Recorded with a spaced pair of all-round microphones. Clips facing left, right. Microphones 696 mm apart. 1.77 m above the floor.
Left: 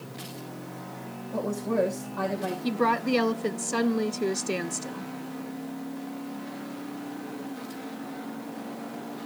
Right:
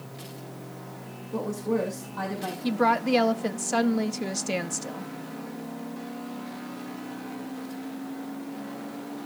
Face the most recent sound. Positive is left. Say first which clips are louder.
# right 2 dB
turn(degrees=-20)  # may be behind; listen again after turning